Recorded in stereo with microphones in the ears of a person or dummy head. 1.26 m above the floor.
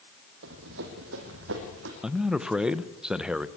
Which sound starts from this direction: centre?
A man speaking, at 2.0 s.